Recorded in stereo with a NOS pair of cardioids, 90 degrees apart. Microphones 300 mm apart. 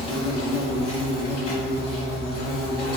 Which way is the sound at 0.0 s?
60° left.